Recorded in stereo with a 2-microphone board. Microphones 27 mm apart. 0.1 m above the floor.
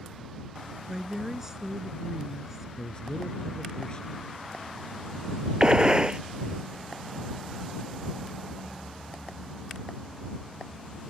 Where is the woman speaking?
20° right (ahead or behind).